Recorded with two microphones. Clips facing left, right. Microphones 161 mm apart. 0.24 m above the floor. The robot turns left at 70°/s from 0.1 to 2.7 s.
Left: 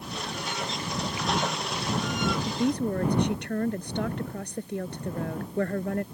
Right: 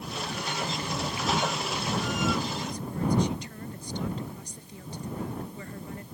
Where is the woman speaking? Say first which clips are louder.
Left 9 dB; 60° left (ahead or behind); by 6.0 s 70° left (ahead or behind).